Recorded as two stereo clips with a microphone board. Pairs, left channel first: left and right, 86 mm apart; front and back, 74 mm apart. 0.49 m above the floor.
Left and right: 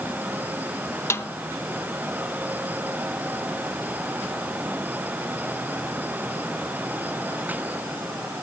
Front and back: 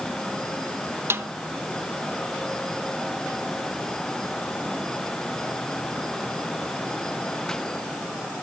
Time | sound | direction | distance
1.1 | a snare drum | 140° left | 0.7 m